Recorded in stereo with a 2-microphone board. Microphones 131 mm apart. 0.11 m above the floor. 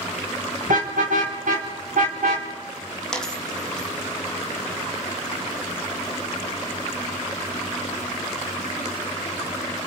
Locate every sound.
0.7 s a car horn: 80° right, 5.5 m
3.1 s a dropped coin: 5° left (ahead or behind), 2.5 m